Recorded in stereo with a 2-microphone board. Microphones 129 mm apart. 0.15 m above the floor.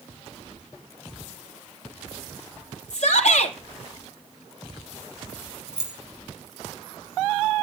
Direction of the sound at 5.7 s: 5° right (ahead or behind).